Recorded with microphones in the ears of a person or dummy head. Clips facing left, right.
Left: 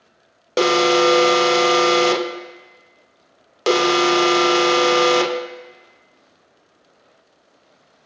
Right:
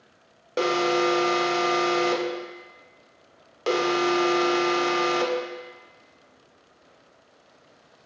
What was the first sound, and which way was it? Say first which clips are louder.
An alarm: left 7 dB; 75° left (ahead or behind).